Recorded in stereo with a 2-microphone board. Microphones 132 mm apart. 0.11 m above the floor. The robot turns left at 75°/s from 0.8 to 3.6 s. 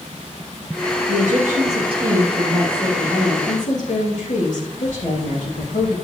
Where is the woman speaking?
75° right, 6 m; by 6.0 s 100° left, 6 m.